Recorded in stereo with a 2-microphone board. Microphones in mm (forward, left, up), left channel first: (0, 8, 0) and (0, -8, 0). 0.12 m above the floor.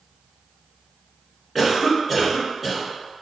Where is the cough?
20° right (ahead or behind), 1.4 m.